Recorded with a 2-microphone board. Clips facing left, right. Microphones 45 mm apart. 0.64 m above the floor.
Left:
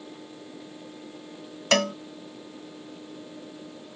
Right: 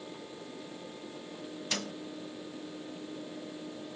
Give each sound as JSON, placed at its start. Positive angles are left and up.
{"t": 1.7, "sound": "a cowbell", "side_deg": 80}